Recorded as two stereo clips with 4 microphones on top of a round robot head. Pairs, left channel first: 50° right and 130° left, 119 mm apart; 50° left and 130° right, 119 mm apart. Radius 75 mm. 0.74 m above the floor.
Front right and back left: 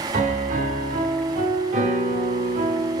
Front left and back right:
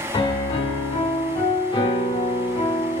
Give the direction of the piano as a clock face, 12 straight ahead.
9 o'clock.